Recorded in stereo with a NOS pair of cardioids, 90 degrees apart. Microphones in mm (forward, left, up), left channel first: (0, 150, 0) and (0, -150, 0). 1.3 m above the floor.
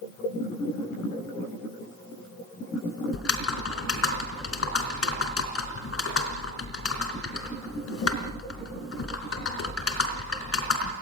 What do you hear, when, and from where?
3.1 s typing on a keyboard: 50° left, 3.5 m